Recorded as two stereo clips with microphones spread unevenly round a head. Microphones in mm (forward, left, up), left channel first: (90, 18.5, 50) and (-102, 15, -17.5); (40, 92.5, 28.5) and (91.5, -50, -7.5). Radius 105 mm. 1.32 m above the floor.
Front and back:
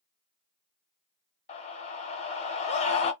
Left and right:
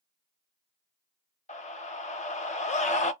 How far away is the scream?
About 0.9 m.